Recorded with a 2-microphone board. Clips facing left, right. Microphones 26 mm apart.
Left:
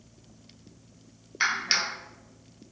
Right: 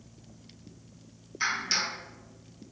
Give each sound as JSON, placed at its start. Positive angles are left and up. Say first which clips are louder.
{"t": 1.4, "sound": "a clap", "louder": "left 3 dB", "side_deg": 45, "distance_m": 0.6}